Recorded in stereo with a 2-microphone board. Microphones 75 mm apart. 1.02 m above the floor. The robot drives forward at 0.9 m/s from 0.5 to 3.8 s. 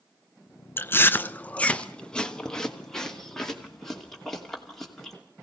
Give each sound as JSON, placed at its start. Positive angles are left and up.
{"t": 0.8, "sound": "chewing", "side_deg": 30, "distance_m": 0.6}